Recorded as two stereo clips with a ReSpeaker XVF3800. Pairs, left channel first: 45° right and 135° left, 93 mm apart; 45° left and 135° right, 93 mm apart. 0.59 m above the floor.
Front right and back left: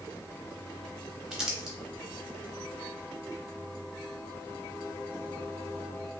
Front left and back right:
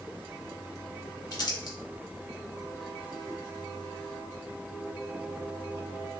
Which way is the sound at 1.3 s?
55° left.